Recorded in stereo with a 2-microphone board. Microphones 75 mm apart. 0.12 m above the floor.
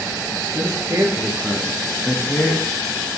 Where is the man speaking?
55° right (ahead or behind), 2 m; by 2.7 s 30° left (ahead or behind), 1.6 m.